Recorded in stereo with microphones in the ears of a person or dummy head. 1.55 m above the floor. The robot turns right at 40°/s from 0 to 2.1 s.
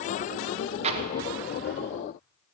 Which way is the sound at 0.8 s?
35° right.